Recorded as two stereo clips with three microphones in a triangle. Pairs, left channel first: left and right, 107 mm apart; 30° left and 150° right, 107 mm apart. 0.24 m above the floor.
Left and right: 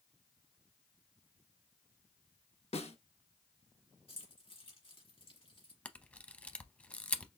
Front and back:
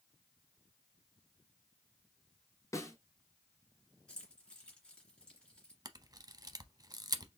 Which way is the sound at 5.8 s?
165° left.